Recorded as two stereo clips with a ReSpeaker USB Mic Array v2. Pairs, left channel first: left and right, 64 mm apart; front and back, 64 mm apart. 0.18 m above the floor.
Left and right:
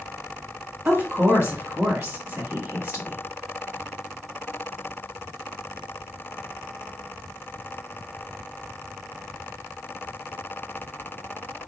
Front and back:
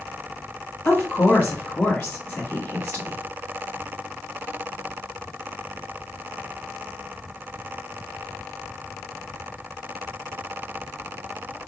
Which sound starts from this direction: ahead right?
A woman speaking, at 0.8 s.